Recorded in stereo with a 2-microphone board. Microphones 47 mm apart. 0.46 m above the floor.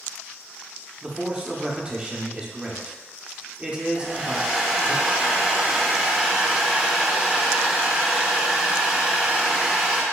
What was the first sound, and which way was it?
A man speaking, 20° right (ahead or behind).